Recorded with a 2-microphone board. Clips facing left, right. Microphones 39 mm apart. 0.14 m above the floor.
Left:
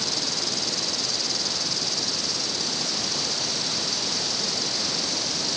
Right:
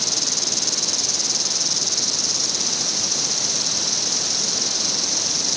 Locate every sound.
0.0 s an insect: 75° right (ahead or behind)